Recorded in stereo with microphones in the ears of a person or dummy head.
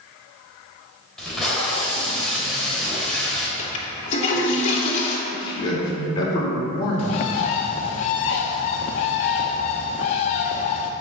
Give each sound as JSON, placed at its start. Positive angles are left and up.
{"t": 1.2, "sound": "tape being pulled", "side_deg": 0, "distance_m": 3.0}
{"t": 3.6, "sound": "a toilet flushing", "side_deg": 40, "distance_m": 2.5}
{"t": 5.3, "sound": "a man speaking", "side_deg": 25, "distance_m": 4.5}
{"t": 7.0, "sound": "a bird", "side_deg": 40, "distance_m": 0.8}